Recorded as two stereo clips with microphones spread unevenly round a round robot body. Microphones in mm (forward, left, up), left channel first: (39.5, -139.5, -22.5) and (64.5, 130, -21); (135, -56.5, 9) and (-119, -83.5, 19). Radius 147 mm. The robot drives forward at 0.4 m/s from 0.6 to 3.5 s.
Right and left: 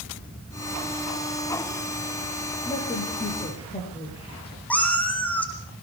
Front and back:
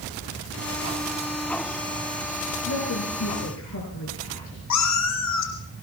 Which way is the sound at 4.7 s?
10° right.